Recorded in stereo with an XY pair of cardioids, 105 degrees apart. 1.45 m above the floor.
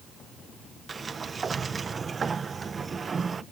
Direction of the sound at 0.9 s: 35° right.